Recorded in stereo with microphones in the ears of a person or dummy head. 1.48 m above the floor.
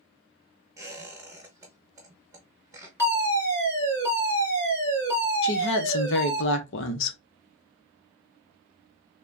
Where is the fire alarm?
10° left (ahead or behind), 2 m.